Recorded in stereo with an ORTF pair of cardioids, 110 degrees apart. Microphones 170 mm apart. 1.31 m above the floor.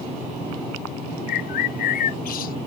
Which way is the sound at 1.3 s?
60° left.